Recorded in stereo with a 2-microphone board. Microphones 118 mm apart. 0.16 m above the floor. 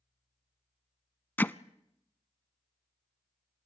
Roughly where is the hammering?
Centre.